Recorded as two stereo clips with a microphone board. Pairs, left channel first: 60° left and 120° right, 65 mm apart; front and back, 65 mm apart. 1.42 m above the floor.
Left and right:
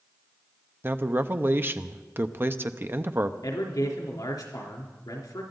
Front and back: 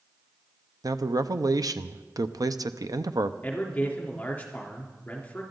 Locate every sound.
0.8 s a man speaking: 175° right, 0.7 m
3.4 s a man speaking: 65° left, 3.5 m